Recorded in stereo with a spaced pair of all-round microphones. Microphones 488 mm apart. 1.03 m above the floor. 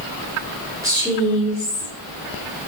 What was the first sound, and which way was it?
A woman speaking, 5° right (ahead or behind).